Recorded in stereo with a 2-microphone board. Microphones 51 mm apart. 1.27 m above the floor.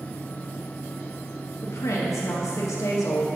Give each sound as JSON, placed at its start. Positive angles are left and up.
{"t": 1.6, "sound": "a woman speaking", "side_deg": 90, "distance_m": 1.3}